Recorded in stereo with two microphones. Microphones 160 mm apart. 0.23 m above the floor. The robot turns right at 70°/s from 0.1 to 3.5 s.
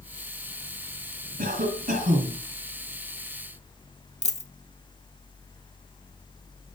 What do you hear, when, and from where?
1.4 s a cough: 110° right, 2 m; by 2.4 s 40° right, 2 m
4.2 s a dropped coin: 40° left (ahead or behind), 0.5 m